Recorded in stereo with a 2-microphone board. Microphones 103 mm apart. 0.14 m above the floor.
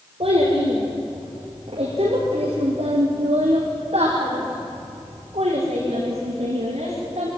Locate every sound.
0.2 s a child speaking: 70° right (ahead or behind), 5 m; by 7.3 s 80° right, 8 m